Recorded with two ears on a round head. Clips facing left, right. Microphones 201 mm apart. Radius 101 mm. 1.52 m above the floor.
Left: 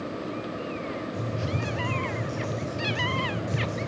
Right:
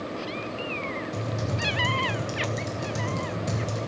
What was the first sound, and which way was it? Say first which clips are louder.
Typing on a keyboard: even; 80° right.